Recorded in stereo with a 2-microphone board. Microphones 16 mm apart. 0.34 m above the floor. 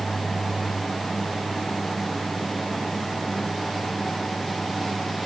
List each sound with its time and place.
Only background noise.